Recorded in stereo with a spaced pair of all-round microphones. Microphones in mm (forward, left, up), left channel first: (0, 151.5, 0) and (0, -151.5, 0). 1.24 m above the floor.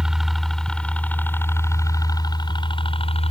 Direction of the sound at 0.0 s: Centre (ahead or behind).